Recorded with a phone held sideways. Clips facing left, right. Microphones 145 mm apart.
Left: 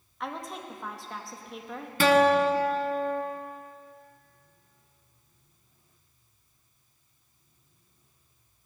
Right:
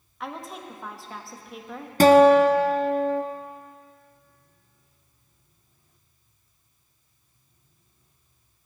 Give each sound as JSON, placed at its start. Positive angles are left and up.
{"t": 0.2, "sound": "a woman speaking", "side_deg": 0, "distance_m": 1.2}
{"t": 2.0, "sound": "a guitar", "side_deg": -40, "distance_m": 0.7}